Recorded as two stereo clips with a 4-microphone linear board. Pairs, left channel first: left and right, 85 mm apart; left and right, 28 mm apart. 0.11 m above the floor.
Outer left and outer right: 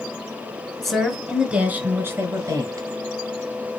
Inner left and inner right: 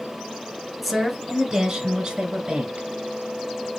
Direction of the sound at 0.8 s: 5° left (ahead or behind).